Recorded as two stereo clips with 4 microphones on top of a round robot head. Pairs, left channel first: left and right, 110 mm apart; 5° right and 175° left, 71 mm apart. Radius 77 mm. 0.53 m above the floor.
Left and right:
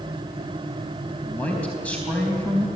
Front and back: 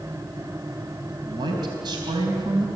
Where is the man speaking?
170° left, 4 m.